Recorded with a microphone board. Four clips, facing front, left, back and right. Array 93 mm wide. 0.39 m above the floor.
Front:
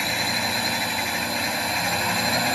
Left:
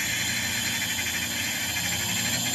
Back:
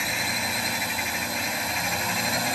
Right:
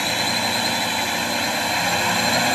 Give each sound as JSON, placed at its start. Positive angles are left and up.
{"t": 0.0, "sound": "a drone", "azimuth_deg": -80}